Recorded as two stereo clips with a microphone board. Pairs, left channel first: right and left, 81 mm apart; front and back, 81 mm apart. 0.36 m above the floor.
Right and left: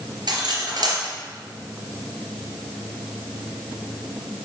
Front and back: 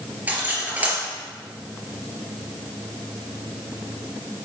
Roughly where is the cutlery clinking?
Left.